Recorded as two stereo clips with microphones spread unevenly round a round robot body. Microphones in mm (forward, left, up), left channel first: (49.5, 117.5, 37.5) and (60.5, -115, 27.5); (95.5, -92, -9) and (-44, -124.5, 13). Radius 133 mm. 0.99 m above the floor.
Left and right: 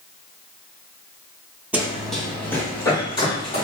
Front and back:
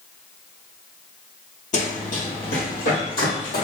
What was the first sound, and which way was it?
Running footsteps, 5° right.